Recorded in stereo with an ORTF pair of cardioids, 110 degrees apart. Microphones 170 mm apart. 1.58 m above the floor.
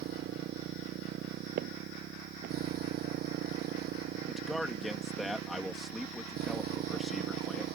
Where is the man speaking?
Straight ahead.